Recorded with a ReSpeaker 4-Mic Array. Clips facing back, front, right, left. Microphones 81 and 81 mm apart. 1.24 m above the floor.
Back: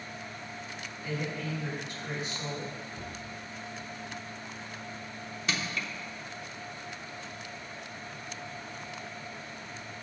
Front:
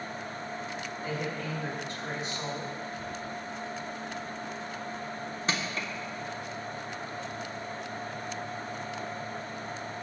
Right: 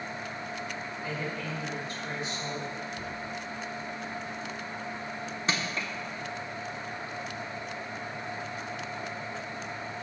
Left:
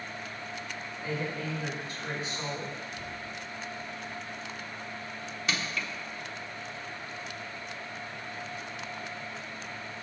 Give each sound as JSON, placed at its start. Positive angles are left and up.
{"t": 1.0, "sound": "a woman speaking", "azimuth_deg": 55, "distance_m": 4.0}
{"t": 2.9, "sound": "a cupboard door", "azimuth_deg": -135, "distance_m": 5.0}
{"t": 5.5, "sound": "crushing", "azimuth_deg": -45, "distance_m": 1.2}